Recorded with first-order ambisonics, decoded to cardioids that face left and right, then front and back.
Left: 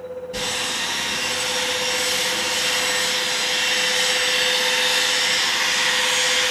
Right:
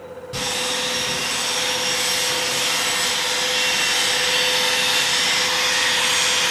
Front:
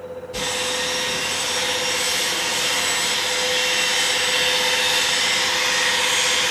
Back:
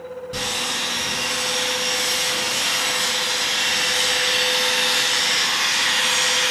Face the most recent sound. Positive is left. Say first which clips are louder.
# right 2 dB, even
turn(degrees=-135)